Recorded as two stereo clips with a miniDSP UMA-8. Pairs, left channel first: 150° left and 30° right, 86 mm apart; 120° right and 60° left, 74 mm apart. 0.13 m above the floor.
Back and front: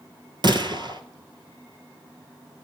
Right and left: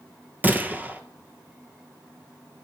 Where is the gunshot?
5° right, 0.8 m.